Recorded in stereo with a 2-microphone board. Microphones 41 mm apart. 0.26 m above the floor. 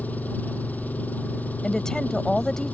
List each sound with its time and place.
0.0 s an engine running: 45° left (ahead or behind)
1.6 s a woman speaking: 15° left (ahead or behind)